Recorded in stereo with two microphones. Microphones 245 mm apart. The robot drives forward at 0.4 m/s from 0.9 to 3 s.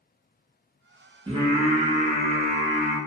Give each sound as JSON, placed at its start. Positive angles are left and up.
{"t": 1.3, "sound": "singing", "side_deg": -20, "distance_m": 1.1}